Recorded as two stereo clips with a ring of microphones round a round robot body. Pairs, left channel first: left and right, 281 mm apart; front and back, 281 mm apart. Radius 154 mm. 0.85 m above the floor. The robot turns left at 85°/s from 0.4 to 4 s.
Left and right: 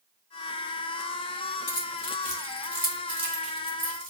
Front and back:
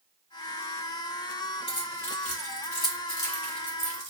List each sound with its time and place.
1.7 s keys jangling: 75° left, 2.0 m; by 4.1 s 125° right, 2.0 m